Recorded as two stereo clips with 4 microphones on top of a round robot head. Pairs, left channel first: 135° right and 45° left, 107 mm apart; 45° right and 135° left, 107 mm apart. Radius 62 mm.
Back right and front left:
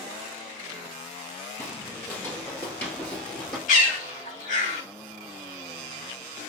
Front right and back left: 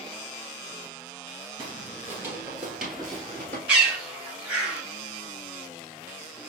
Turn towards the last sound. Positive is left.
turn(degrees=-145)